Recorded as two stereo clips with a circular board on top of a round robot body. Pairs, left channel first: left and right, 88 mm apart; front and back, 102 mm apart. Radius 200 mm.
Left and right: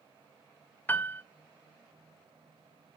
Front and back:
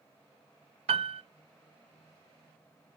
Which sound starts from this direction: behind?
A piano, at 0.9 s.